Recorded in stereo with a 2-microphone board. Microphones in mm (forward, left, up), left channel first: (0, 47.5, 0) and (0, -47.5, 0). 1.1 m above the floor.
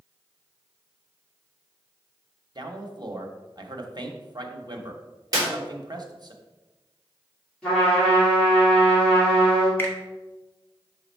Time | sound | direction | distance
2.5 | a man speaking | 45° right (ahead or behind) | 1.0 m
5.3 | a clap | 40° right (ahead or behind) | 3 m
7.6 | a trumpet | 5° left (ahead or behind) | 3 m
9.8 | a finger snap | 20° left (ahead or behind) | 1.1 m